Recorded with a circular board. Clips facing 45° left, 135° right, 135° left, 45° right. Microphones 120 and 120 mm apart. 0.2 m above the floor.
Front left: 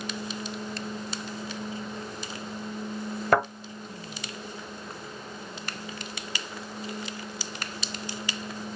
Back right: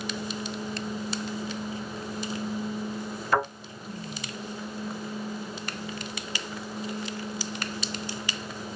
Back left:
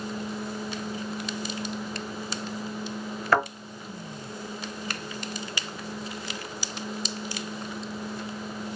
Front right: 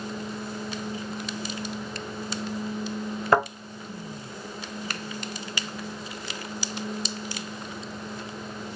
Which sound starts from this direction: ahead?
A thud, at 3.3 s.